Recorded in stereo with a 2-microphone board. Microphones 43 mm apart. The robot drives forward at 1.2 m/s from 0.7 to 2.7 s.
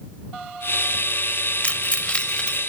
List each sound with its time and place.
1.6 s keys jangling: 30° left (ahead or behind), 0.7 m; by 2.6 s 20° left (ahead or behind), 1.2 m